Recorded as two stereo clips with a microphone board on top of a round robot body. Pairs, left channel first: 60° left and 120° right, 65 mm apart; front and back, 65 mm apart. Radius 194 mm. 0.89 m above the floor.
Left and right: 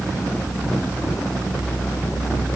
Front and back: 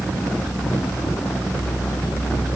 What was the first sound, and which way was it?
Only background noise.